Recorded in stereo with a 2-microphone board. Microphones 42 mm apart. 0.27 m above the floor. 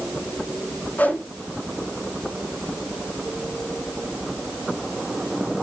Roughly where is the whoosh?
Left.